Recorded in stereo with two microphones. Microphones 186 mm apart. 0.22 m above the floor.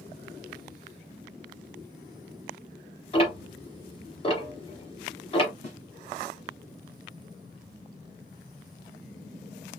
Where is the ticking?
30° left (ahead or behind), 1.1 m.